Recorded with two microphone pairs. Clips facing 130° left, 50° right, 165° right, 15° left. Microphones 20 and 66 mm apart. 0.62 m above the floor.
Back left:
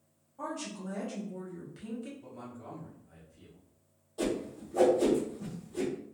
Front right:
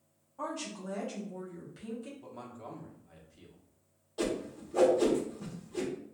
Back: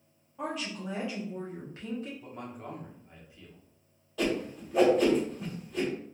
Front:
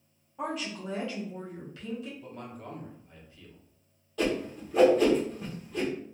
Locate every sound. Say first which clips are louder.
0.4 s a woman speaking: even, front 1 dB; 55° right, 1.0 m; by 2.1 s 155° right, 1.2 m
2.2 s a man speaking: even, even; 95° right, 1.1 m
4.2 s a whoosh: back left 1 dB, front 1 dB; 80° right, 1.2 m